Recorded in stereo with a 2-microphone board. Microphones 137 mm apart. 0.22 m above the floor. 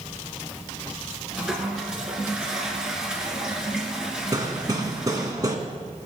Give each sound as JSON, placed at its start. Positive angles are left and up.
{"t": 1.3, "sound": "a toilet flushing", "side_deg": -5, "distance_m": 2.5}
{"t": 4.3, "sound": "hammering", "side_deg": -30, "distance_m": 2.0}